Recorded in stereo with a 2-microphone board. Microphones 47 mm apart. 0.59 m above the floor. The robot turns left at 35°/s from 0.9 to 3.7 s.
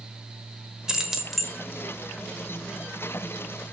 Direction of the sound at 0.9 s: 15° right (ahead or behind).